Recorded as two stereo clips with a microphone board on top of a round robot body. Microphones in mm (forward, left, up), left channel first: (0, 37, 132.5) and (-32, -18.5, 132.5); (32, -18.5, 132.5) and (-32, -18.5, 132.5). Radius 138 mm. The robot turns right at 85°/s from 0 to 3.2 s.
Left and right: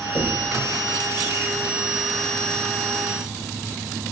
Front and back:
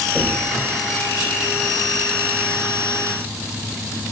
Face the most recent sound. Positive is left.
turn(degrees=-10)